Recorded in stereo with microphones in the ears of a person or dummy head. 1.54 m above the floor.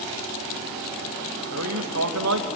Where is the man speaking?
70° right (ahead or behind), 1.4 m.